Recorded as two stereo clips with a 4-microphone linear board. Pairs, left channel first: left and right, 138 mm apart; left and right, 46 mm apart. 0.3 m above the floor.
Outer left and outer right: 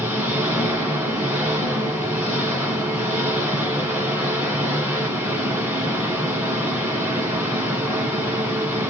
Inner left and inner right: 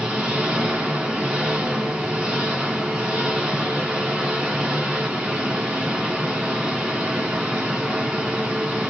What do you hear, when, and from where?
0.0 s an engine running: 15° right (ahead or behind), 1.9 m